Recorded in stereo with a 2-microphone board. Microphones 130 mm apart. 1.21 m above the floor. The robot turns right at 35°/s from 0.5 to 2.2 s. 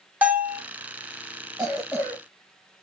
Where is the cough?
10° right (ahead or behind), 1.0 m; by 2.2 s 10° left (ahead or behind), 1.0 m.